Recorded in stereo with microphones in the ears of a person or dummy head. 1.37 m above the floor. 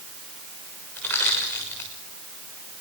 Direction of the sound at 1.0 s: 15° left (ahead or behind).